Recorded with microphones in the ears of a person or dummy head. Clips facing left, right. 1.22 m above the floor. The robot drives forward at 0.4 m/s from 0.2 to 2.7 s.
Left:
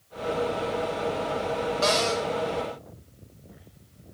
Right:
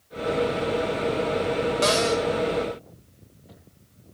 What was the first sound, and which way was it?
A cupboard door, 30° right (ahead or behind).